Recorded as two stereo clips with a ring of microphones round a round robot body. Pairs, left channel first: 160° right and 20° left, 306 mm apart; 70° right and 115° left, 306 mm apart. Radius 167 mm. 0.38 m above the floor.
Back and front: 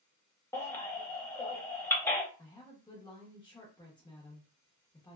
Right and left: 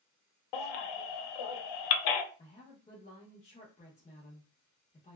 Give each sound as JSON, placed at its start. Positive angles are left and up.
{"t": 0.5, "sound": "a baby crying", "azimuth_deg": -75, "distance_m": 0.5}
{"t": 2.4, "sound": "a woman speaking", "azimuth_deg": -100, "distance_m": 0.9}